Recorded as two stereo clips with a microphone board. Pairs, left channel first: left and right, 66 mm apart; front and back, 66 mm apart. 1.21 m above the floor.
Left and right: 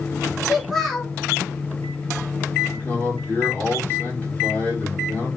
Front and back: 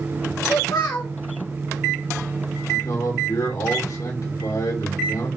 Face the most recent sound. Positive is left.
turn(degrees=25)